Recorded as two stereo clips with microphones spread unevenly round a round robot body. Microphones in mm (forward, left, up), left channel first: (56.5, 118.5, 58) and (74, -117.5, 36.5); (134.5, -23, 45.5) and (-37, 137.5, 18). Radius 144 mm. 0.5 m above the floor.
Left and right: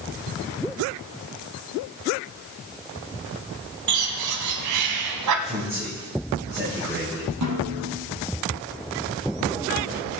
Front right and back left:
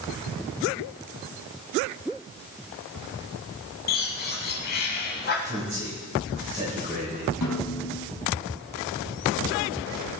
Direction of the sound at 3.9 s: 100° right.